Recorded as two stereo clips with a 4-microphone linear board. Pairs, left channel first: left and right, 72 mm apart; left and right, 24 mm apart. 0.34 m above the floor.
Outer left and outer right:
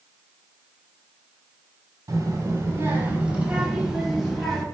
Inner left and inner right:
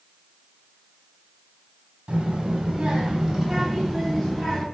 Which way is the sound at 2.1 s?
45° right (ahead or behind).